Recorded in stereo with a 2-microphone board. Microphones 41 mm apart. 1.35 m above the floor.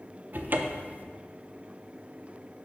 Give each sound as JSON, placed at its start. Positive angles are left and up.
{"t": 0.3, "sound": "a cupboard door", "side_deg": -45, "distance_m": 0.5}